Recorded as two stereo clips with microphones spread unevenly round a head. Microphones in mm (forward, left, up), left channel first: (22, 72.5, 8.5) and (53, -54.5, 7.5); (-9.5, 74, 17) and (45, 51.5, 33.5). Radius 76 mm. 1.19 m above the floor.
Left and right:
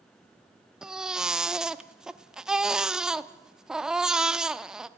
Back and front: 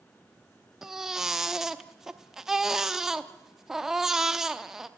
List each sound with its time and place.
0.8 s a baby crying: 5° left, 0.7 m